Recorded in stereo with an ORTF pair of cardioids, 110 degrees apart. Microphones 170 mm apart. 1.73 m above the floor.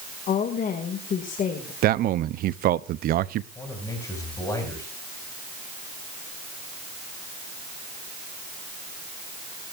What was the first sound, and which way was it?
A woman speaking, 50° left.